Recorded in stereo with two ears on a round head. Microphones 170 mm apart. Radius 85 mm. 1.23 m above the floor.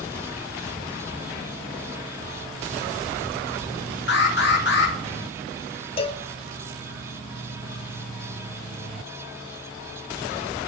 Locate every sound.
4.1 s an alarm: 60° left (ahead or behind), 2 m
6.0 s a cowbell: 30° left (ahead or behind), 0.8 m